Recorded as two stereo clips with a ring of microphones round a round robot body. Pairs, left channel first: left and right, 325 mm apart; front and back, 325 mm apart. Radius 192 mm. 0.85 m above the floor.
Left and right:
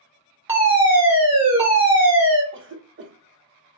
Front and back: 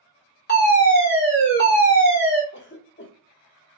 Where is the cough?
45° right, 0.8 m.